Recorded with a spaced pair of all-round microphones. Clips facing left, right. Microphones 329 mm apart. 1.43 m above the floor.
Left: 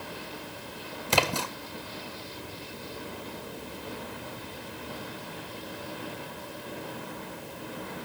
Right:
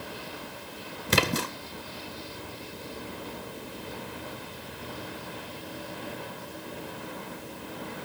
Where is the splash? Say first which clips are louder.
Right 2 dB; 25° right (ahead or behind), 1.5 m.